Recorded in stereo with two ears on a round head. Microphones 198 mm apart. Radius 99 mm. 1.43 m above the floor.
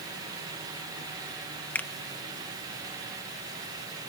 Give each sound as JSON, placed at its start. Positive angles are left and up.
{"t": 1.8, "sound": "a finger snap", "side_deg": 10}